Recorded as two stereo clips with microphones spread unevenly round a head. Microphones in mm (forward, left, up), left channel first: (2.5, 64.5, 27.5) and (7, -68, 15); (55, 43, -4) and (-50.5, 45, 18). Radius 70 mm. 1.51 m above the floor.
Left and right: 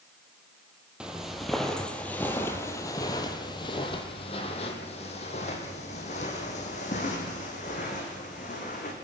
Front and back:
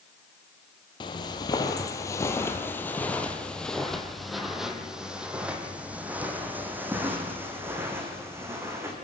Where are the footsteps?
Straight ahead, 1.7 m; by 8.9 s 120° left, 4 m.